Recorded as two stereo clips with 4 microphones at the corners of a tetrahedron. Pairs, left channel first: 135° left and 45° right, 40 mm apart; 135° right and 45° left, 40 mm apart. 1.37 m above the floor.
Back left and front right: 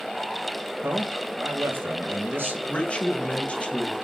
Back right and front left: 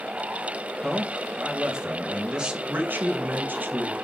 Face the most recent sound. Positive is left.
turn(degrees=80)